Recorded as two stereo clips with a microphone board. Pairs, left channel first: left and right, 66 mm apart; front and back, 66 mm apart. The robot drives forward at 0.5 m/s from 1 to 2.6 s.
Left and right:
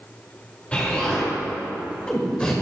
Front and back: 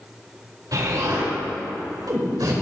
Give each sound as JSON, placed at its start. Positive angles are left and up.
{"t": 0.7, "sound": "an explosion", "azimuth_deg": 160, "distance_m": 4.0}